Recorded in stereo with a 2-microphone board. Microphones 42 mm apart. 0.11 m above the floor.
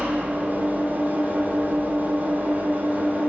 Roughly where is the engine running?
Right.